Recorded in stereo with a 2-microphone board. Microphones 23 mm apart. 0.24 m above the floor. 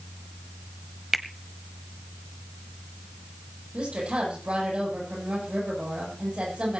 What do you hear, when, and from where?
1.1 s a finger snap: 10° right (ahead or behind), 1.0 m
3.7 s a woman speaking: 50° right (ahead or behind), 9.5 m